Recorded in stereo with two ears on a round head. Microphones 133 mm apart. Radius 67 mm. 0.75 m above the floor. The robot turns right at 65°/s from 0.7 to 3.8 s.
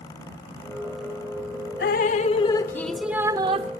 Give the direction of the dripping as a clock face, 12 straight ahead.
8 o'clock.